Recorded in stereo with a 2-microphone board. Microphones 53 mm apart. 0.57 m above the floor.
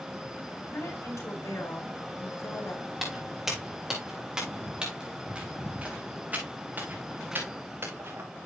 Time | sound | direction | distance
0.7 | a woman speaking | 75° left (ahead or behind) | 4 m
3.0 | footsteps | centre (ahead or behind) | 6 m